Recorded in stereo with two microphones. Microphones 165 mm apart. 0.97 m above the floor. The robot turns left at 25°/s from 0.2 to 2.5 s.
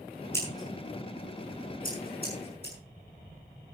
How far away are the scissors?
About 6 m.